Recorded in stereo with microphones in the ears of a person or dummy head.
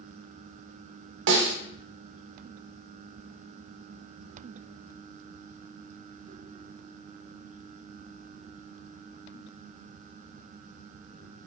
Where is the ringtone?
No ringtone in this recording.